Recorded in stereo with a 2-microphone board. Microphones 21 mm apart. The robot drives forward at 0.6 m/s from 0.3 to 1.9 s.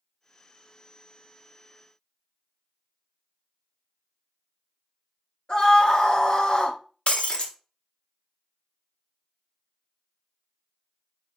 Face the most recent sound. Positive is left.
turn(degrees=60)  # may be behind; listen again after turning